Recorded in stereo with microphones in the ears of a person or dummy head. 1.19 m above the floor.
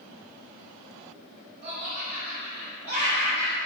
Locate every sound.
1.6 s laughter: 25° right (ahead or behind), 1.3 m